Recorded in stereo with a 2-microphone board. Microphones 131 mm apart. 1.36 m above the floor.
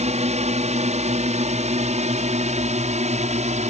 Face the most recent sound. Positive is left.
turn(degrees=-65)  # may be behind; listen again after turning